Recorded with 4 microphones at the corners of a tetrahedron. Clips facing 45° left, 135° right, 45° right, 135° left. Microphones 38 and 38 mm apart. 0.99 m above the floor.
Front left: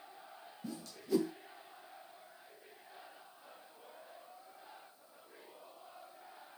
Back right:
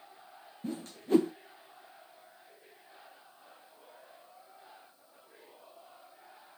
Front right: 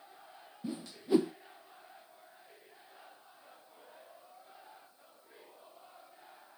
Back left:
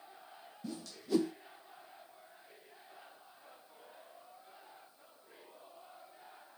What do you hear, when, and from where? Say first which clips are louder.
0.6 s a whoosh: back right 6 dB, front right 5 dB; 105° right, 0.7 m